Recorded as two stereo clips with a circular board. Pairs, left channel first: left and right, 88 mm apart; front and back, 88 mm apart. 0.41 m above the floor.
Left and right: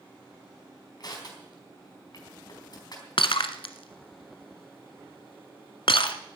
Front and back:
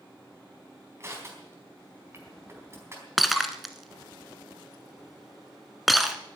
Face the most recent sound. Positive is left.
turn(degrees=90)